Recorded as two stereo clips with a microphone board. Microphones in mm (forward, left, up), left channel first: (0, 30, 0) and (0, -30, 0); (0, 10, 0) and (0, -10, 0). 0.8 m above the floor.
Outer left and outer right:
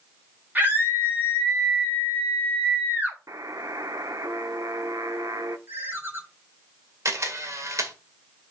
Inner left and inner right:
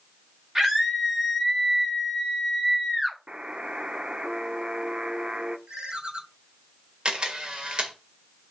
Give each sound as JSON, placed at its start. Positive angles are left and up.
{"t": 0.6, "sound": "a scream", "side_deg": -30, "distance_m": 3.5}
{"t": 3.3, "sound": "a buzzer", "side_deg": -65, "distance_m": 0.7}
{"t": 5.7, "sound": "a ringtone", "side_deg": -40, "distance_m": 1.5}
{"t": 7.0, "sound": "a camera shutter", "side_deg": -55, "distance_m": 1.8}